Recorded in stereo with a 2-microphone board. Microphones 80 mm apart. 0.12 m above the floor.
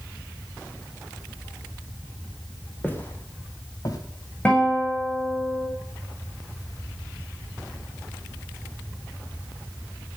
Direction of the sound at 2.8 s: 20° left (ahead or behind).